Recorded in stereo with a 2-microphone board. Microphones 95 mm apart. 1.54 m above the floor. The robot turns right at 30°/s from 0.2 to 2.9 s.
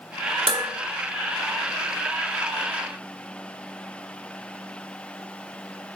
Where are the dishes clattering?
65° right (ahead or behind), 1.6 m.